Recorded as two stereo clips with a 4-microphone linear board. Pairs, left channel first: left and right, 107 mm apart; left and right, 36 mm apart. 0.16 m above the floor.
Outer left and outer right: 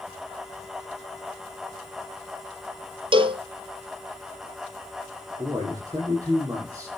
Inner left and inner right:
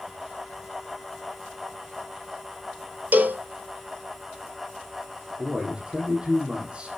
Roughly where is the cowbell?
Right.